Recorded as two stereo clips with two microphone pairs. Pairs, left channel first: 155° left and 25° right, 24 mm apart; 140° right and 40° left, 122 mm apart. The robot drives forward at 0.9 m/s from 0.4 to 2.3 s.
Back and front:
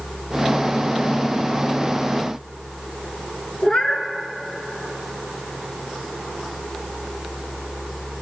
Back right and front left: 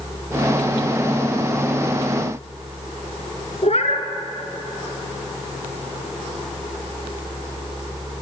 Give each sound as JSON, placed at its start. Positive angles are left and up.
{"t": 3.6, "sound": "a cat meowing", "azimuth_deg": -165, "distance_m": 2.0}